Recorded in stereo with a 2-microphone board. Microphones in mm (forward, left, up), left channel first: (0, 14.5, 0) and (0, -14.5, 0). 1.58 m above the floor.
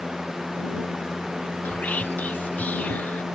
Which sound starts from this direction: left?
Whispering, at 1.6 s.